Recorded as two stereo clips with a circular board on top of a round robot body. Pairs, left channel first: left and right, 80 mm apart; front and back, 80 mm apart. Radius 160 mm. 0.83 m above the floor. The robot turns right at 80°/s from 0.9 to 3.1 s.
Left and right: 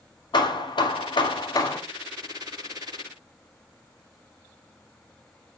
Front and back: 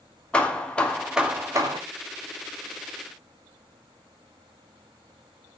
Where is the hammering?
80° left, 2.5 m; by 1.8 s 150° left, 2.5 m.